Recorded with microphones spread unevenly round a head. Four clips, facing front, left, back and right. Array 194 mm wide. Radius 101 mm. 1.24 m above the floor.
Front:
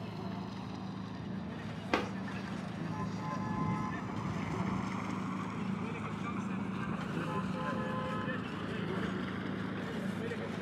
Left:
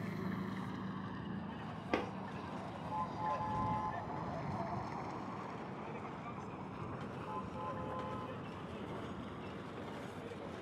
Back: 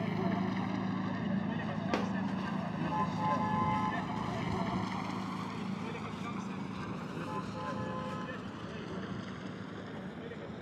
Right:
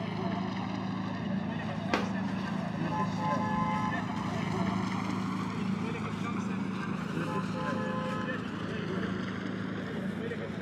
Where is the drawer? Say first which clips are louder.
Right 5 dB, front 1 dB; 150° right.